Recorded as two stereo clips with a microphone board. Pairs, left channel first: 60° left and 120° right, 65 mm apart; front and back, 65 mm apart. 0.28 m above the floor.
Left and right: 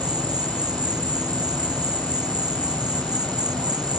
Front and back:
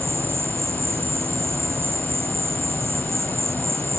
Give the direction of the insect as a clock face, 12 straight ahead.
4 o'clock.